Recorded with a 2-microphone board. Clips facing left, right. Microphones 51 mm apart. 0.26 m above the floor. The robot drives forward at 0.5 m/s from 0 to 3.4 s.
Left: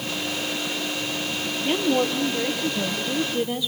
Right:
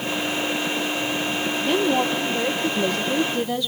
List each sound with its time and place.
1.6 s a woman speaking: 15° left (ahead or behind), 5 m; by 3.7 s 10° left (ahead or behind), 5.5 m